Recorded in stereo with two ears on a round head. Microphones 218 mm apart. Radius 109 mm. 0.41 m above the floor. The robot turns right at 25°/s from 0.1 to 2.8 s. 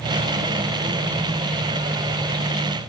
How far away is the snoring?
No snoring in this recording.